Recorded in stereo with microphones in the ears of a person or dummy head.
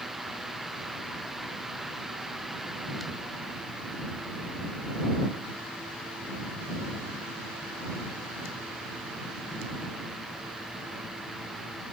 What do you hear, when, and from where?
Only background noise.